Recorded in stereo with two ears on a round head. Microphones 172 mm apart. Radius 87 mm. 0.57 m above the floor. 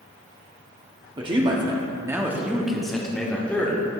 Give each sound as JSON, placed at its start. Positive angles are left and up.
{"t": 1.2, "sound": "a man speaking", "side_deg": -25, "distance_m": 1.1}